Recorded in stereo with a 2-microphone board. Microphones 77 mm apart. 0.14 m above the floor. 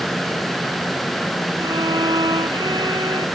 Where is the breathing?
No breathing in this recording.